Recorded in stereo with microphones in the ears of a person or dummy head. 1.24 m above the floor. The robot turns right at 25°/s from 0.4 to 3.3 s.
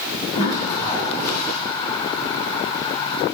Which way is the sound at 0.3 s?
30° left (ahead or behind).